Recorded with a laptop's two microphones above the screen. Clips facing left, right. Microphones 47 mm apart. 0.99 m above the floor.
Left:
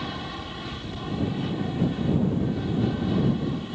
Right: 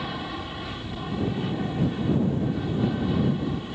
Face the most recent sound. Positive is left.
turn(degrees=-5)  # may be behind; listen again after turning